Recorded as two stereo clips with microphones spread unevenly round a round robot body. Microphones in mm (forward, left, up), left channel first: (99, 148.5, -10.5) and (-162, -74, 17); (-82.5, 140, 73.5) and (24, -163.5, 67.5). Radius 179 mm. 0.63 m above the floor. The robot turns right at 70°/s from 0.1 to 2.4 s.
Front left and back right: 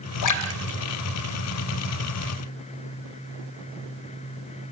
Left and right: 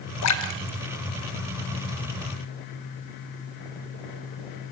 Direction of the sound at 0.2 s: 65° left.